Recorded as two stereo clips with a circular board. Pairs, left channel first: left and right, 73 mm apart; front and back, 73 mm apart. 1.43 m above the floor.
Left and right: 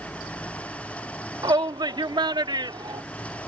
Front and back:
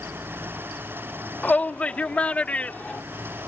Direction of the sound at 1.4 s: 75° right.